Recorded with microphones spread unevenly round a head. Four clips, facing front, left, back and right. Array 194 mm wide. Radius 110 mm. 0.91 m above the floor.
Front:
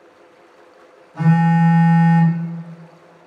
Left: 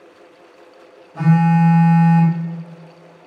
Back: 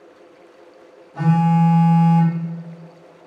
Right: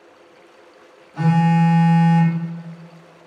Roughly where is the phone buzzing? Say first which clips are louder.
Left 2 dB, front 1 dB; behind.